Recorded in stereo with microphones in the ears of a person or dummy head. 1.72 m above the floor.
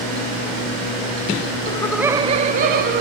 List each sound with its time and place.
1.7 s laughter: 35° left (ahead or behind), 0.6 m; by 3.0 s 55° right (ahead or behind), 1.4 m